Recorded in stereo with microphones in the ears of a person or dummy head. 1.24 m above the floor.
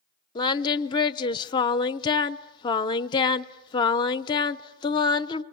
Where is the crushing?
I don't hear crushing.